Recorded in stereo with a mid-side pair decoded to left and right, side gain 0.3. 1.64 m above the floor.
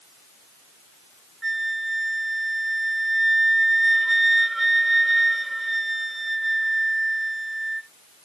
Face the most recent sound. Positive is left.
turn(degrees=-20)